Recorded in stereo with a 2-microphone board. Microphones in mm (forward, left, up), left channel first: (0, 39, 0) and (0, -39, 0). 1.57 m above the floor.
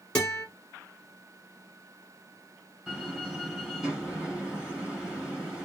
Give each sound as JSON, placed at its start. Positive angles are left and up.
{"t": 0.1, "sound": "a guitar", "side_deg": 15, "distance_m": 2.5}
{"t": 2.9, "sound": "a door slam", "side_deg": -5, "distance_m": 3.5}